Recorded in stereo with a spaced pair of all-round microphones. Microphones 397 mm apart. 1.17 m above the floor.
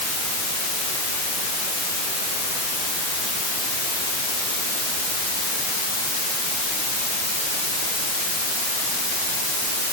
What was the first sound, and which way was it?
Only background noise.